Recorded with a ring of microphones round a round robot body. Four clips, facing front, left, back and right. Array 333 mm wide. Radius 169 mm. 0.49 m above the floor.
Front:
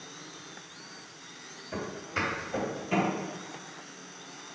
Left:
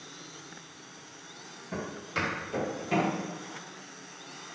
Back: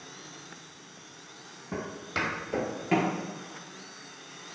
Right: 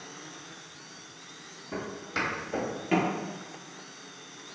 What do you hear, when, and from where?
1.7 s footsteps: straight behind, 1.5 m; by 3.1 s 135° right, 0.6 m